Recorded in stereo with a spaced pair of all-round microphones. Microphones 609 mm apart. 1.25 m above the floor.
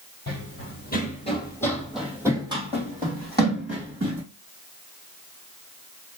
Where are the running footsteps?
25° left (ahead or behind), 2.0 m; by 4.2 s 25° right (ahead or behind), 3 m.